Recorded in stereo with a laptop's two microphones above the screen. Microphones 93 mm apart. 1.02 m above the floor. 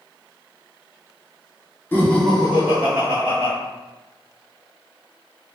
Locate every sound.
1.9 s laughter: 25° left (ahead or behind), 0.7 m; by 3.5 s 50° right (ahead or behind), 0.8 m